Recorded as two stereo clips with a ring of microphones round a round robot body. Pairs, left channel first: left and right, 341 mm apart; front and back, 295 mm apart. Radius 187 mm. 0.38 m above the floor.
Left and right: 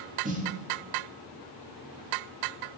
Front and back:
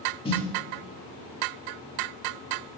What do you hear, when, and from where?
0.2 s a snare drum: 50° right, 1.5 m